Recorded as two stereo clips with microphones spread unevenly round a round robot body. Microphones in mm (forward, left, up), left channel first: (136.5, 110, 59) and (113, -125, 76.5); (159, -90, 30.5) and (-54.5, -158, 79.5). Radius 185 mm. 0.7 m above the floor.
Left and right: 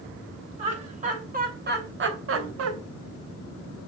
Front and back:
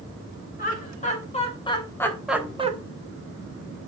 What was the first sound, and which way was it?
Laughter, 35° right.